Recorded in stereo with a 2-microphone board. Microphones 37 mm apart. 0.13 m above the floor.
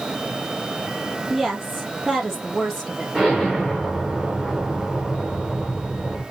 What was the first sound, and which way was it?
A woman speaking, 5° right (ahead or behind).